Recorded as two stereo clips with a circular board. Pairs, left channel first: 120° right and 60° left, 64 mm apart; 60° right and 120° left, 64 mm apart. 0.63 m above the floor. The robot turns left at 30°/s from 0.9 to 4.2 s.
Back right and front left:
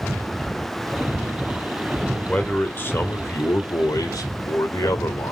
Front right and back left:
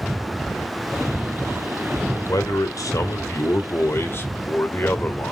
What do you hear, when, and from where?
2.3 s a man speaking: 50° right, 1.7 m; by 5.3 s 110° right, 1.7 m